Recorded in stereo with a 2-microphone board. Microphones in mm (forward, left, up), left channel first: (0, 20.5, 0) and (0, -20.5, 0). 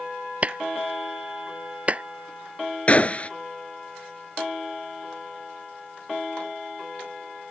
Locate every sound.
0.4 s a clap: 35° right (ahead or behind)
2.9 s a gunshot: 35° left (ahead or behind)